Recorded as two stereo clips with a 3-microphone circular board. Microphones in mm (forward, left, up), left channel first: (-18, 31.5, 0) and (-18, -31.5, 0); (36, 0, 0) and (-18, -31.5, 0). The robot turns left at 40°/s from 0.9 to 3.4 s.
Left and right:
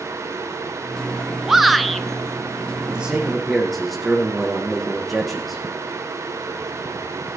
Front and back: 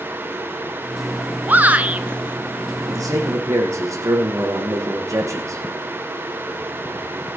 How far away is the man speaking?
About 5.5 m.